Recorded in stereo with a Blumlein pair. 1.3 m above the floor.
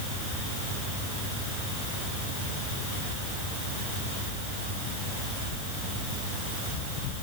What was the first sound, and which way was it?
Only background noise.